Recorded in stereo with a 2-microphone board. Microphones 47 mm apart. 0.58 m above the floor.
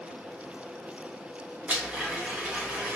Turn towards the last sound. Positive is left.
turn(degrees=-30)  # may be behind; listen again after turning